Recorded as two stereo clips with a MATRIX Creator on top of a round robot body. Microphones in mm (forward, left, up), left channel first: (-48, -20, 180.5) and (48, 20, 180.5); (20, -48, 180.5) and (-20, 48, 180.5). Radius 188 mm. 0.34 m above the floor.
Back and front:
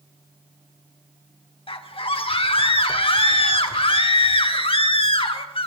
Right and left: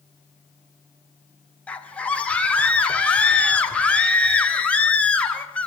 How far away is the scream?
About 3 m.